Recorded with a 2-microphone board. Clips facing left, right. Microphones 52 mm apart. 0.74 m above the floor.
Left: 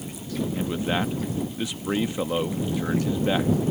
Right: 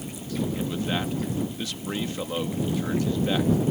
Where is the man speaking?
15° left (ahead or behind).